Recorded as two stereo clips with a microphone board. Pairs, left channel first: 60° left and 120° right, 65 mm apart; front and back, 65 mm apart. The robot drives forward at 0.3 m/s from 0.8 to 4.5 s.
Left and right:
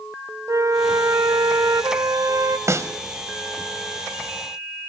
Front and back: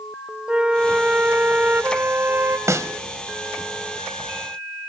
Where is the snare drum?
150° right, 1.5 m; by 2.9 s 155° right, 1.6 m.